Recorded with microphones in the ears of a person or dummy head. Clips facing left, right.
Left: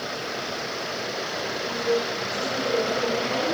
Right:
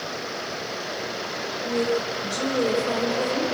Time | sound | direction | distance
1.6 | a woman speaking | 80° right | 5.5 m